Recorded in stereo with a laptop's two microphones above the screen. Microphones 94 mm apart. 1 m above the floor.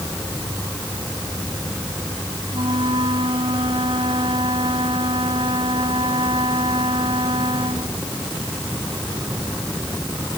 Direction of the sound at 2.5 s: 65° right (ahead or behind).